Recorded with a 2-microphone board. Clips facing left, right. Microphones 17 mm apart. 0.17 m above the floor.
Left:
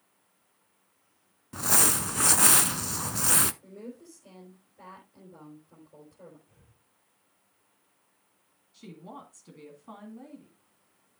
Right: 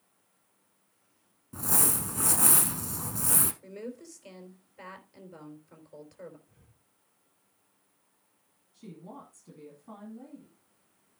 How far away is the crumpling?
About 0.5 m.